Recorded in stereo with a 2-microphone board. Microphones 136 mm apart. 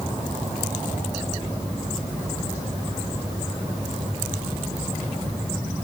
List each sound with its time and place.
Only background noise.